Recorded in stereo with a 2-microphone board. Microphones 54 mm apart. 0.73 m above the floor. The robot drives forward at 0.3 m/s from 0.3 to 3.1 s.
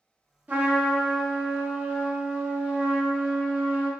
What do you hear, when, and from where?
0.5 s a trumpet: 30° right (ahead or behind), 1.2 m; by 3.9 s 20° right (ahead or behind), 1.8 m